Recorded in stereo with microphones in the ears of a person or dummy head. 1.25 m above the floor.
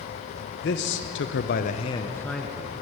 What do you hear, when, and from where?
0.5 s a man speaking: 60° left (ahead or behind), 1.0 m; by 2.7 s 5° right (ahead or behind), 0.9 m